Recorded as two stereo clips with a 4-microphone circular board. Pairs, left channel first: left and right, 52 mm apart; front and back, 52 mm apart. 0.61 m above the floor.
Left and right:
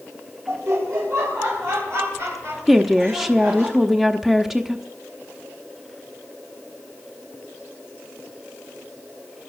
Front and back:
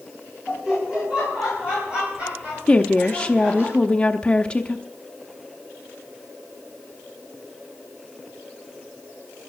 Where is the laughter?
100° right, 3.5 m; by 3.7 s 125° right, 5 m.